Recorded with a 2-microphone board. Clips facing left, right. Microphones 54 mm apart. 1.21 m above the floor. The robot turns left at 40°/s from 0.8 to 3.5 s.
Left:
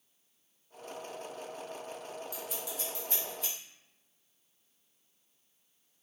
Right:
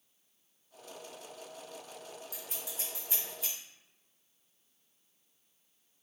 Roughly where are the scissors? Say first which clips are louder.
Left 5 dB; right.